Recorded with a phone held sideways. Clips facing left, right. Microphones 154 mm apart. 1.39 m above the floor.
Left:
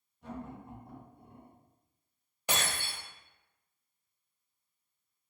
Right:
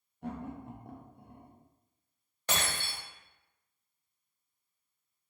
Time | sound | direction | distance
0.2 | laughter | 60° right (ahead or behind) | 0.8 m
2.5 | breaking glass | 10° left (ahead or behind) | 1.4 m